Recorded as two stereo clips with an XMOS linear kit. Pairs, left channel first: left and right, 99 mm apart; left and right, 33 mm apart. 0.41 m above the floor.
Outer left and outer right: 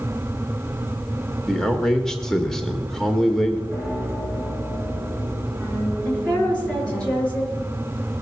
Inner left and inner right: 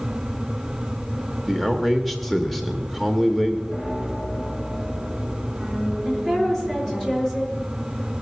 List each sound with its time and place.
1.5 s a man speaking: 5° left (ahead or behind), 1.1 m
3.7 s a piano: 5° left (ahead or behind), 7.5 m
6.0 s a woman speaking: 10° left (ahead or behind), 6.5 m